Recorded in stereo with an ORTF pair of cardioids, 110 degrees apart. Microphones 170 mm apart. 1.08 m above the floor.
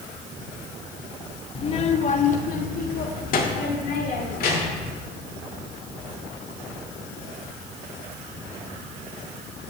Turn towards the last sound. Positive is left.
turn(degrees=60)